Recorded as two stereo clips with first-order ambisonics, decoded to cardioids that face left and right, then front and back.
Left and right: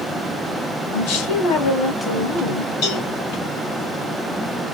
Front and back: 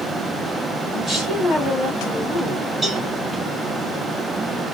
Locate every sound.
0.9 s a woman speaking: 95° left, 2.5 m
2.8 s a cowbell: 95° left, 3 m